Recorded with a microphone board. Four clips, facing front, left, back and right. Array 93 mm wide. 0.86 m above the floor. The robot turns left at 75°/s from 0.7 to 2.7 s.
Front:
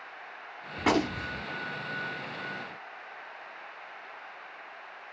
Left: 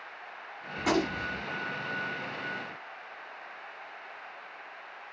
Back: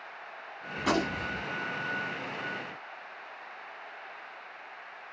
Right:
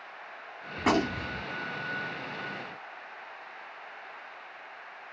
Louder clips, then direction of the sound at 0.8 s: Right 2 dB, front 2 dB; 35° right.